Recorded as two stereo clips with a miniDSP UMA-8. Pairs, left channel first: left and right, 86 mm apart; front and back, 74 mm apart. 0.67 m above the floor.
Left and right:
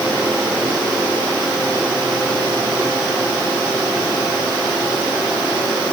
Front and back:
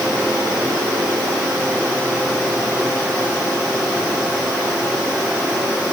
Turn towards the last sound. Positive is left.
No sound to turn to.